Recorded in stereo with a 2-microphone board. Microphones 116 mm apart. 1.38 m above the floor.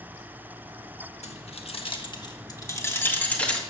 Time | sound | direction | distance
1.2 | keys jangling | 65° left (ahead or behind) | 1.3 m